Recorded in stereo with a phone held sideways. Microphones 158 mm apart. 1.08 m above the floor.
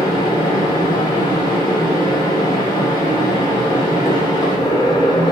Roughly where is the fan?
Left.